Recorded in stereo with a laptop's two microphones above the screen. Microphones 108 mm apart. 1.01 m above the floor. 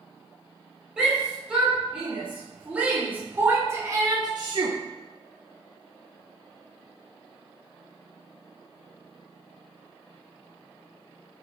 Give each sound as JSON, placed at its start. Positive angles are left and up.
{"t": 1.0, "sound": "a shout", "side_deg": -10, "distance_m": 5.0}